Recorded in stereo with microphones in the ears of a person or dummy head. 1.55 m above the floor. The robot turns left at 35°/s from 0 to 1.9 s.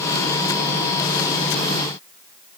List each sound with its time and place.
Only background noise.